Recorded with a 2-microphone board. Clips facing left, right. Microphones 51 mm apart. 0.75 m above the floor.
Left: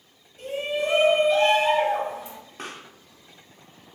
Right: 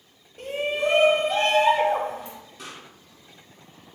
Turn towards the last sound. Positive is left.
turn(degrees=45)  # may be behind; listen again after turning